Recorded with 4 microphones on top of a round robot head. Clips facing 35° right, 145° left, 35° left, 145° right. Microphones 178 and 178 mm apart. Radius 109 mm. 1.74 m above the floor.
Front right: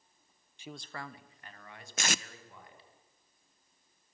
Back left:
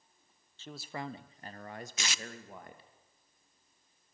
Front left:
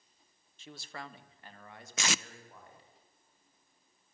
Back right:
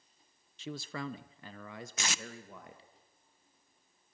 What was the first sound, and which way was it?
A man speaking, 115° right.